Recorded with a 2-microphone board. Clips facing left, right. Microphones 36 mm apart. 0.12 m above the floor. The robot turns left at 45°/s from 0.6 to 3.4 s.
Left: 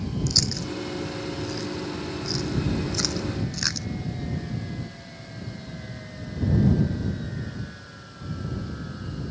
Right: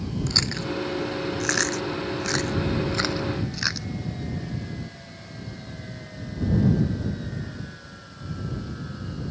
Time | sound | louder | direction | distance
0.3 | chewing | right 3 dB | 35° right (ahead or behind) | ?